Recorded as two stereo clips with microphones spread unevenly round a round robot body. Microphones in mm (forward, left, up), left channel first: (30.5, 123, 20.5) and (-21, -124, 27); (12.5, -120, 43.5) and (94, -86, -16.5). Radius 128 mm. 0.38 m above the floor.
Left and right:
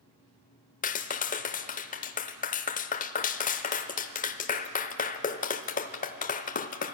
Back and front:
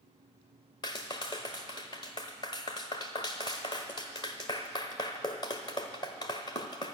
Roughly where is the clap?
Behind left.